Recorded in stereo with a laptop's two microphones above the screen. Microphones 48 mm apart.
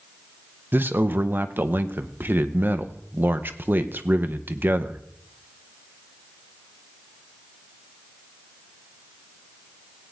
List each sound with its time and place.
0.7 s a man speaking: 45° right (ahead or behind), 0.8 m